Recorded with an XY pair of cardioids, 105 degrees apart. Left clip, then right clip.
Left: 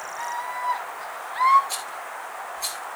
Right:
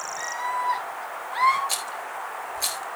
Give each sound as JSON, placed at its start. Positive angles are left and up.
{"t": 0.2, "sound": "a scream", "azimuth_deg": -60, "distance_m": 7.5}
{"t": 1.7, "sound": "a rattle", "azimuth_deg": -55, "distance_m": 4.0}